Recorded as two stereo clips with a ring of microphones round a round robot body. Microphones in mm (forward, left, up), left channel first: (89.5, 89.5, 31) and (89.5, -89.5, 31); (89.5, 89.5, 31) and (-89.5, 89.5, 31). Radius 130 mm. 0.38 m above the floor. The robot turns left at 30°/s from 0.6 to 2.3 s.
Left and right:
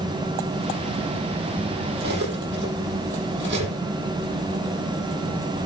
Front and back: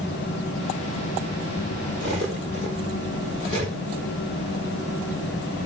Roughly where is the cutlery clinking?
Ahead right.